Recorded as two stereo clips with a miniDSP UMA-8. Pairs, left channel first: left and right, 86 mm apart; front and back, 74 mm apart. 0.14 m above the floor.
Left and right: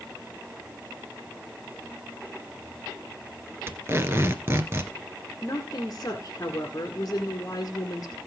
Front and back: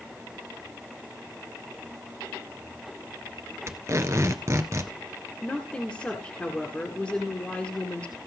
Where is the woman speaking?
65° left, 1.7 m.